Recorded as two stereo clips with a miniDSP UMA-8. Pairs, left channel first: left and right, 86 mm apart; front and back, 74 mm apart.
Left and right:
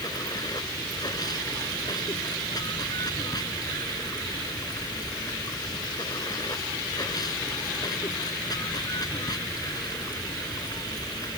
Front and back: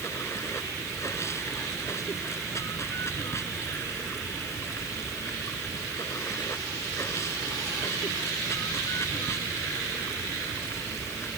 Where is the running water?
50° left.